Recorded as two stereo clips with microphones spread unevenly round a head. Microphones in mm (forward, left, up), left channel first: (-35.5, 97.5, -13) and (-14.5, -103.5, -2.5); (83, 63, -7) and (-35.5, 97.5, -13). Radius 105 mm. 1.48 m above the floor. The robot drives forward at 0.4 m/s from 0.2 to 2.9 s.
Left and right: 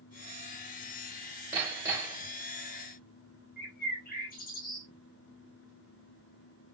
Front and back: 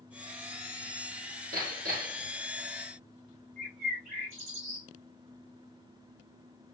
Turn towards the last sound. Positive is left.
turn(degrees=145)